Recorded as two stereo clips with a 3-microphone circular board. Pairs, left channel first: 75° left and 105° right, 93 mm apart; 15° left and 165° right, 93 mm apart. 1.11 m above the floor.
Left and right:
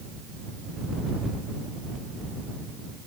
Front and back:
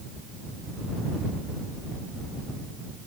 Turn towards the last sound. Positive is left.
No sound to turn to.